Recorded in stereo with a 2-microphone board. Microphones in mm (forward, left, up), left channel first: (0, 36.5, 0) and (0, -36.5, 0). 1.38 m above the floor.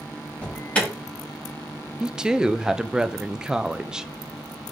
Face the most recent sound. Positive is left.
turn(degrees=-10)  # may be behind; listen again after turning